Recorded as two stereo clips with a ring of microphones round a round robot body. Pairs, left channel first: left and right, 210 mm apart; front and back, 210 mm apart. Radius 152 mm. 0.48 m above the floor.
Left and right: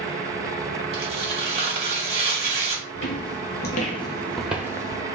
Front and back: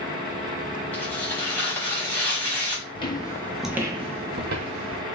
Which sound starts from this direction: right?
Tearing paper, at 0.9 s.